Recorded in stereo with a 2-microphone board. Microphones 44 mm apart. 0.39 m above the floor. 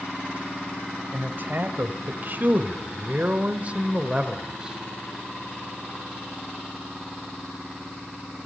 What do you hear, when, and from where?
1.1 s a man speaking: 45° right (ahead or behind), 2 m; by 4.8 s 15° right (ahead or behind), 1.7 m